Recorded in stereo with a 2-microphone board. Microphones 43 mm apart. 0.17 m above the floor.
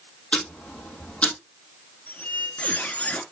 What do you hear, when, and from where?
0.3 s ticking: 30° left (ahead or behind), 3 m
2.1 s a squeak: 35° left (ahead or behind), 1.7 m